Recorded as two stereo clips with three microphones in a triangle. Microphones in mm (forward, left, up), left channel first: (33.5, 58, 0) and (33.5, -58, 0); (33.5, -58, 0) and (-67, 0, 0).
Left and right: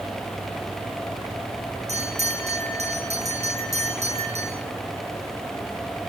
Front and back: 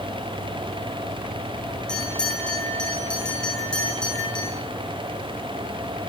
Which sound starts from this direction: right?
A bell, at 1.9 s.